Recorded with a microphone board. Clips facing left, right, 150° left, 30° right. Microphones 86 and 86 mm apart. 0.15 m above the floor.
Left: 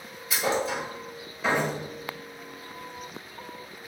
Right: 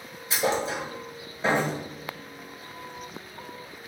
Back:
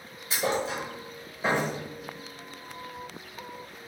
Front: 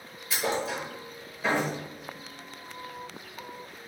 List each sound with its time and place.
0.3 s a thud: 150° right, 1.1 m